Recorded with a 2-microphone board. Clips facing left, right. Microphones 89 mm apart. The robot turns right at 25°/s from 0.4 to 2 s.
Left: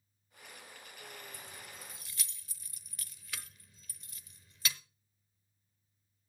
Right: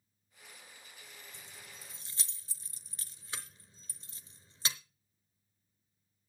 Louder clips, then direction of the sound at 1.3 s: Left 4 dB; 30° right (ahead or behind).